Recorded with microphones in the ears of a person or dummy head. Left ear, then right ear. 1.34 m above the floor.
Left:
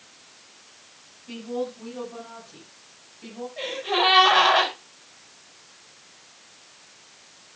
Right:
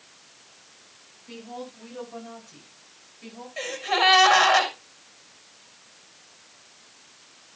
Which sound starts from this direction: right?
A gasp, at 3.6 s.